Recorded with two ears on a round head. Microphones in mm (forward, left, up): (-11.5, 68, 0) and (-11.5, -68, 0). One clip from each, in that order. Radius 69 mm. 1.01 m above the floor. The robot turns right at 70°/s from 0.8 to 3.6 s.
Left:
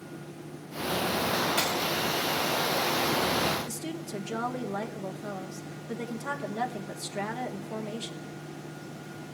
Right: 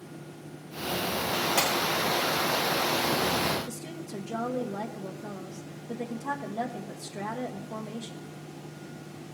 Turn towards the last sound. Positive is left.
turn(degrees=60)  # may be behind; listen again after turning